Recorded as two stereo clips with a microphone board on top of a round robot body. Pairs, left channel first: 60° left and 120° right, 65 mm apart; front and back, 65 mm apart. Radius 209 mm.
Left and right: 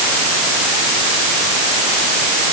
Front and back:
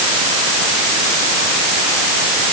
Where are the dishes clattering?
No dishes clattering in this recording.